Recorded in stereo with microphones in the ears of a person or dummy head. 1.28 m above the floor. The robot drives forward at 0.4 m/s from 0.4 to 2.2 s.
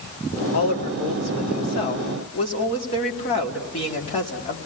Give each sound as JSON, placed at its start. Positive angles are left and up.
{"t": 0.5, "sound": "a woman speaking", "side_deg": 45, "distance_m": 2.0}